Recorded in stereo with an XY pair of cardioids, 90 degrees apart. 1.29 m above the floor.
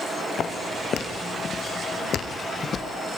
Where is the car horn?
No car horn in this recording.